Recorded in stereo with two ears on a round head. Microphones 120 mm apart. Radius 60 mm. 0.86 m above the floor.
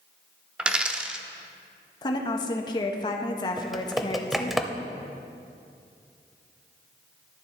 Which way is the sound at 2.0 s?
30° left (ahead or behind).